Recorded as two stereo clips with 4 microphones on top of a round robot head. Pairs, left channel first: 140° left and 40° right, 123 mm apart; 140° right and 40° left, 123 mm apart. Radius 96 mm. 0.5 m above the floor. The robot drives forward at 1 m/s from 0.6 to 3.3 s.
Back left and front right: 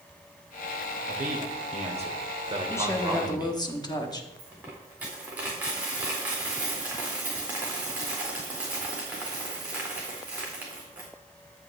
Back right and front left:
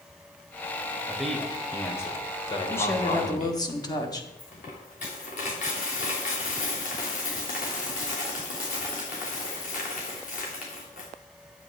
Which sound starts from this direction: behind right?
A dropped coin, at 4.4 s.